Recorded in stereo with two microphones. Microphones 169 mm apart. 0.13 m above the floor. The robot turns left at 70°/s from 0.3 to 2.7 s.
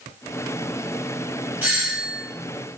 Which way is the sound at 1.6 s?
10° right (ahead or behind).